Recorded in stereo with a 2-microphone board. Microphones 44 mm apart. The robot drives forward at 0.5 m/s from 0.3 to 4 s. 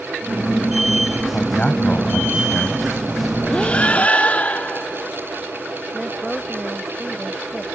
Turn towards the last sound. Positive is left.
turn(degrees=-5)  # may be behind; listen again after turning